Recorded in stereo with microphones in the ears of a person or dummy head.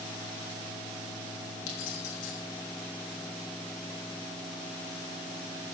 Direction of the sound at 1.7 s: 75° left (ahead or behind).